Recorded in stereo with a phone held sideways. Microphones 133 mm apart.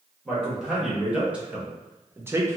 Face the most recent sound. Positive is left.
turn(degrees=-20)  # may be behind; listen again after turning